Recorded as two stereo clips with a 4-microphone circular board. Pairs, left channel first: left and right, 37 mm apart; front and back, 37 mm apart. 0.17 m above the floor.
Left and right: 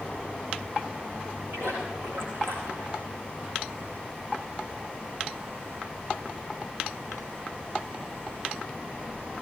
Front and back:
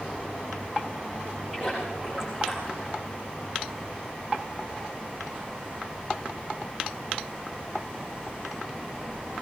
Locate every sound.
1.5 s a splash: 105° right, 8 m